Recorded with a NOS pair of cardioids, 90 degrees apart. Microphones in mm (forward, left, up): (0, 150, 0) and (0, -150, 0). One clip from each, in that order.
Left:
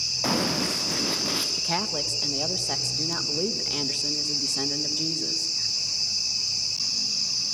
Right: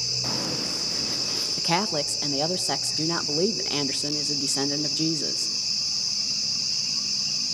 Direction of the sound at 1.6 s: 30° right.